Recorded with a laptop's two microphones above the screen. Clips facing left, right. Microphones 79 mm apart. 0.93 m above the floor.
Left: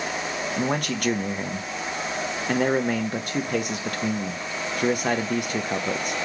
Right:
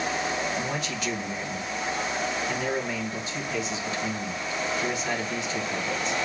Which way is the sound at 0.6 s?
60° left (ahead or behind).